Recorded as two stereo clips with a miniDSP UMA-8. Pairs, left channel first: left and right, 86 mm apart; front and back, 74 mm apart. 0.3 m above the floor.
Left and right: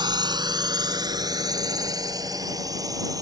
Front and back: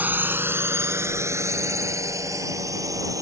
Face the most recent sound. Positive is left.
turn(degrees=-140)